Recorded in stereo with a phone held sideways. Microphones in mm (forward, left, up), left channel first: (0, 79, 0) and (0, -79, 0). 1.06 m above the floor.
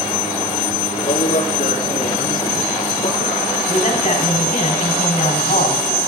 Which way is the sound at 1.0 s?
55° left (ahead or behind).